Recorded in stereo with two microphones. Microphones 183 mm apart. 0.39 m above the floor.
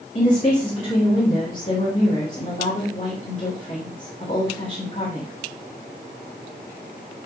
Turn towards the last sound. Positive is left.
turn(degrees=50)  # may be behind; listen again after turning